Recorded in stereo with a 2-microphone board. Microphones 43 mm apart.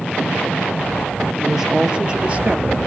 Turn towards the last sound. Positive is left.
turn(degrees=-40)  # may be behind; listen again after turning